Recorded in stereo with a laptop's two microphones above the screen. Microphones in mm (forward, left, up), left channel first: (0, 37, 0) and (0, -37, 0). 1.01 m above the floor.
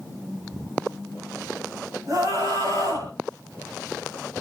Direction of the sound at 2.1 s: 45° right (ahead or behind).